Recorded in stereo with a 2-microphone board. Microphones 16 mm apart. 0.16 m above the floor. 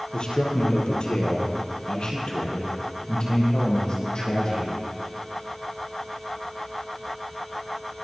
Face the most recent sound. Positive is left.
turn(degrees=50)  # may be behind; listen again after turning